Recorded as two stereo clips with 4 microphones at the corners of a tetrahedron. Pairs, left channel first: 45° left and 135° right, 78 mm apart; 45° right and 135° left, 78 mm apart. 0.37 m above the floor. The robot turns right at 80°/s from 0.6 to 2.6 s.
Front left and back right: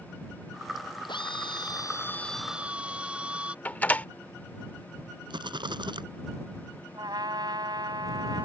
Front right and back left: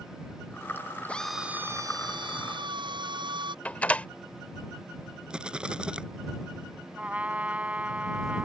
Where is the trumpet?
155° right.